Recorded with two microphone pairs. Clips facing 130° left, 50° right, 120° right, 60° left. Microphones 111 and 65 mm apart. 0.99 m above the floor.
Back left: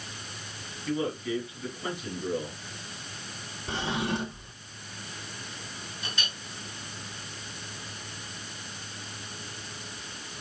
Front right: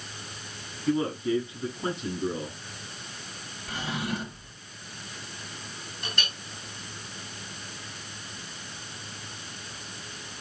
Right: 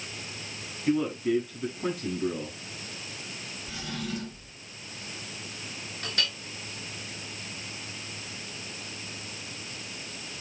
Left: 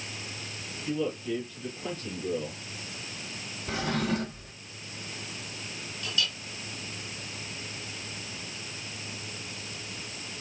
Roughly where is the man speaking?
Right.